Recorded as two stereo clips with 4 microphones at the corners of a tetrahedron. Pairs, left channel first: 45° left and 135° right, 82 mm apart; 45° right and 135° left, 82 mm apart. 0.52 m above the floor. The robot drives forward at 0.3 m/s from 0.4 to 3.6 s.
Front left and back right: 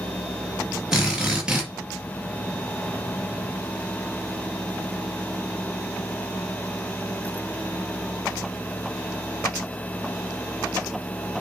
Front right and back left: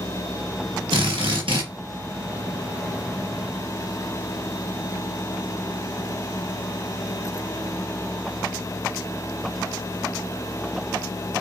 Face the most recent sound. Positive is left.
turn(degrees=150)